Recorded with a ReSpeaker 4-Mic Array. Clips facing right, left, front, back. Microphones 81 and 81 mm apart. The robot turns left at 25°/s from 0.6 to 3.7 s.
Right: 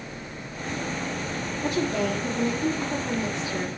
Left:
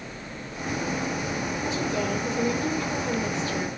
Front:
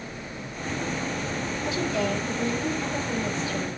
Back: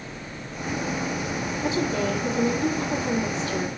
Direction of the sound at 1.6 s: 120° right.